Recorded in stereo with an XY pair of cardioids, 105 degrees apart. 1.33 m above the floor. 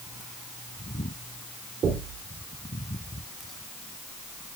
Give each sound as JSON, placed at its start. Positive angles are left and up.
{"t": 1.8, "sound": "knocking", "azimuth_deg": -65, "distance_m": 3.0}